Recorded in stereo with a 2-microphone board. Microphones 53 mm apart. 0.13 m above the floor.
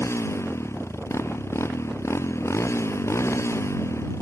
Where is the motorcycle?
60° left (ahead or behind).